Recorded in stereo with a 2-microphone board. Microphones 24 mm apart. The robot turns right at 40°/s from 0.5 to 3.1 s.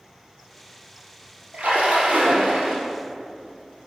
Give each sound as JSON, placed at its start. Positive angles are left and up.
{"t": 1.5, "sound": "a splash", "azimuth_deg": -110, "distance_m": 3.0}